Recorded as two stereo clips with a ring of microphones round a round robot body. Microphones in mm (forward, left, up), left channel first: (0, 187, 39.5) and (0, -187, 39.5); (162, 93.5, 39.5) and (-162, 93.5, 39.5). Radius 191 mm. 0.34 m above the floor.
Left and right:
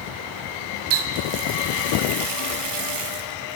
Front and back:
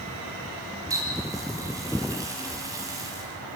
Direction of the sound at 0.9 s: 100° right.